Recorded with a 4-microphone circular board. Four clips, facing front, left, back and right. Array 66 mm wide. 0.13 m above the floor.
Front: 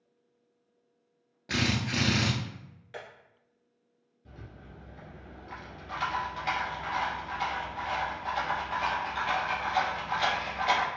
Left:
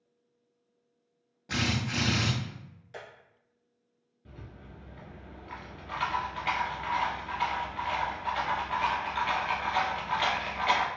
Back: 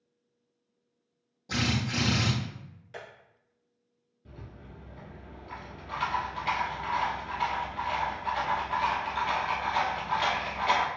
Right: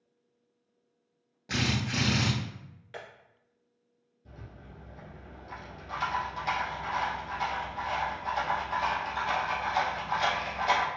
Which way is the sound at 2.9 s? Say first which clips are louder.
Right 1 dB, even; 60° right.